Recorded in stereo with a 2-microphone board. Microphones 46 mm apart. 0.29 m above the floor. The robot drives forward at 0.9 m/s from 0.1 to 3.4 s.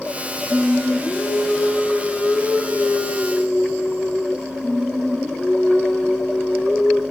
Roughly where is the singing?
Left.